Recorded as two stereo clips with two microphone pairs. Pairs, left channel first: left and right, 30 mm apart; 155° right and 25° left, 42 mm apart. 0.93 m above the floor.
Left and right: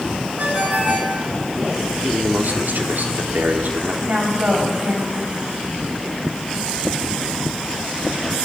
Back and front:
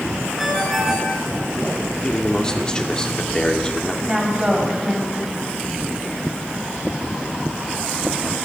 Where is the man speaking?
85° right, 2.5 m.